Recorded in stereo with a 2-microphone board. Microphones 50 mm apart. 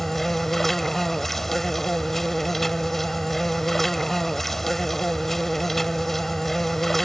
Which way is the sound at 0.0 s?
5° left (ahead or behind).